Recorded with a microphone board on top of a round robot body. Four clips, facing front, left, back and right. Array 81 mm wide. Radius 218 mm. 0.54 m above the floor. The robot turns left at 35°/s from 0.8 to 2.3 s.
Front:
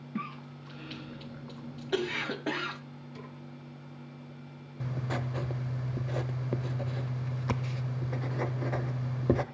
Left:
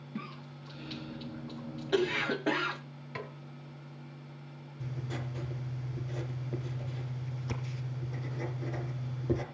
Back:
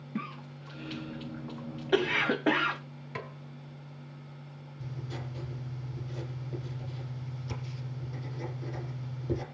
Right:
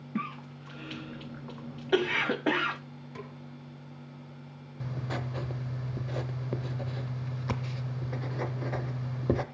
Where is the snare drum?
155° left, 2 m.